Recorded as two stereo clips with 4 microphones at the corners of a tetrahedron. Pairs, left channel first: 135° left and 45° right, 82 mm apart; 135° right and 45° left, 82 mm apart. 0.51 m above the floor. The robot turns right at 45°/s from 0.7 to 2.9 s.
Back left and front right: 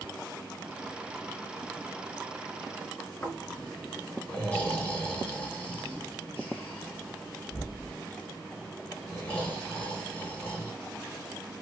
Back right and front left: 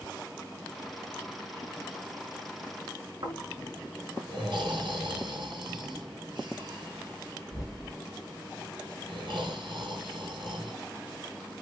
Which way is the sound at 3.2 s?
65° left.